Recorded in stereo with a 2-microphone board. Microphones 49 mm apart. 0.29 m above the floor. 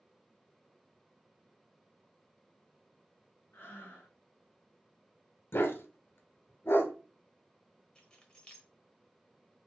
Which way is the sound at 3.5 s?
50° left (ahead or behind).